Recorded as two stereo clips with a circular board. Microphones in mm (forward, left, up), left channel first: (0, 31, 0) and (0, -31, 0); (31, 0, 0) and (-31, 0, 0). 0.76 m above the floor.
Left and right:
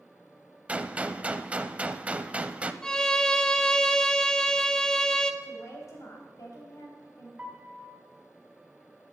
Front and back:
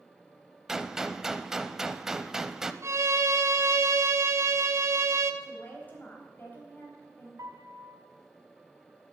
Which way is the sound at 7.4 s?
160° right.